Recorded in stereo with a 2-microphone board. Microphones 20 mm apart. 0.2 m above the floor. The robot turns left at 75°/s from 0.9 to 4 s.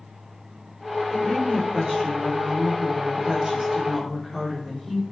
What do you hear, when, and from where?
1.1 s a woman speaking: 35° left, 7 m; by 5.0 s straight behind, 7 m